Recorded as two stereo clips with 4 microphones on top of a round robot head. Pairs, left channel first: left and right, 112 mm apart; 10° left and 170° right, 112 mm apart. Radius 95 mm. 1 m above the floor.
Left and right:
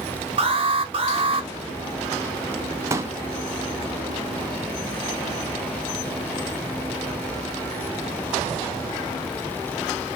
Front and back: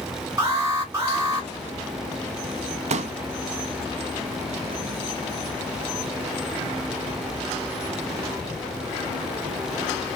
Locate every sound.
0.4 s an alarm: 115° right, 2.5 m
2.9 s a pop: 155° right, 0.6 m